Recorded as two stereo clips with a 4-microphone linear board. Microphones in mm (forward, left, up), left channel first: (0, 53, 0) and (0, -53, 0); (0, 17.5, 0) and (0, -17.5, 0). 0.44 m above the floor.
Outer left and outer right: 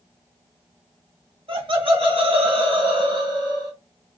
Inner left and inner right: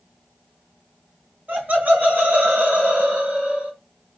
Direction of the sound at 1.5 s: 60° right (ahead or behind).